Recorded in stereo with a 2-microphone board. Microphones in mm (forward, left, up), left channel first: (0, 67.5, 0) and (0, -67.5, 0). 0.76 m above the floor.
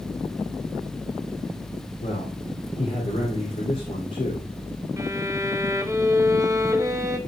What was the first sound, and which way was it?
A man speaking, 70° left (ahead or behind).